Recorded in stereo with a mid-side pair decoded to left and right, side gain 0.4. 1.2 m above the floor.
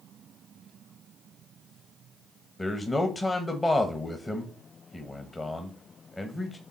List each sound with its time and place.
2.6 s a man speaking: 30° left, 0.9 m